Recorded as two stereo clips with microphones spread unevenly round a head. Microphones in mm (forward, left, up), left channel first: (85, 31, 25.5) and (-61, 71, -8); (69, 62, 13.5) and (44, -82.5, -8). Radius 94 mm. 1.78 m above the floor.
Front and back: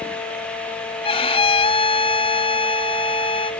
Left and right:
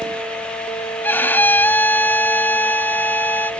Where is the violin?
15° left.